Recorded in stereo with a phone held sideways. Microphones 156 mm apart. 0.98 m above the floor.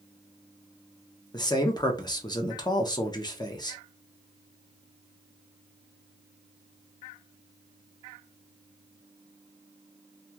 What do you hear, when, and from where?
1.3 s a man speaking: 25° left (ahead or behind), 0.5 m